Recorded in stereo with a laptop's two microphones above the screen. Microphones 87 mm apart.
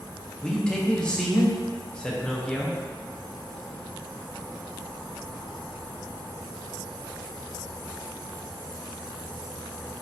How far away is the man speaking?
About 0.9 m.